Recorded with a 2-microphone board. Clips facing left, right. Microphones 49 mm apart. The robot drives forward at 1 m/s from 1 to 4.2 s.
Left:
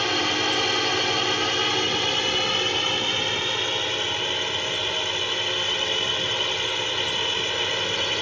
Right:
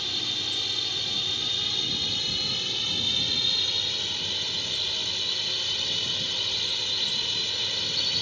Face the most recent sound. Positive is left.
turn(degrees=45)  # may be behind; listen again after turning